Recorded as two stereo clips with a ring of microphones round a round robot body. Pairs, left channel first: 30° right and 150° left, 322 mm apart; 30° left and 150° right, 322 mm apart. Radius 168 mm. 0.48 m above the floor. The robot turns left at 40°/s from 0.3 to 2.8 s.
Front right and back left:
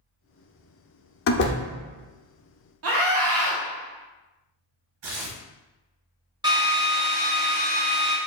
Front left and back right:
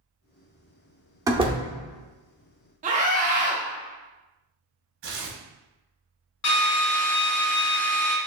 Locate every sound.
1.3 s a door slam: 70° right, 0.6 m; by 1.6 s 90° right, 0.6 m
2.8 s a scream: 155° left, 0.9 m
5.0 s tearing paper: 155° left, 1.2 m
6.4 s a drill: 75° left, 1.1 m